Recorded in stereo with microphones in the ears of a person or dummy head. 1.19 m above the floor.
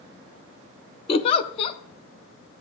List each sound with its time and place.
1.1 s a giggle: 30° left (ahead or behind), 0.5 m